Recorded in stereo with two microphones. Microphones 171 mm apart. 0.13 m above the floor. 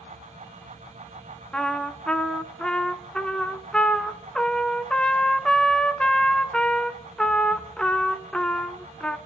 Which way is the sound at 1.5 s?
5° left (ahead or behind).